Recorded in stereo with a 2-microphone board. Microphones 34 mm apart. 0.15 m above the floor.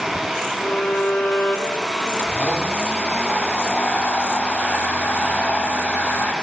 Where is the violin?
55° left (ahead or behind), 3.5 m.